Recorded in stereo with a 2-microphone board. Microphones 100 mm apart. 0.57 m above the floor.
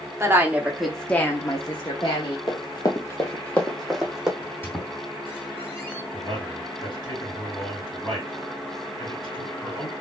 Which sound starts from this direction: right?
A woman speaking, at 0.2 s.